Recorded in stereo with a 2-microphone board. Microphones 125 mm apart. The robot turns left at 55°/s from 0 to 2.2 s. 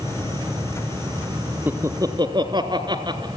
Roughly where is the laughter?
Centre.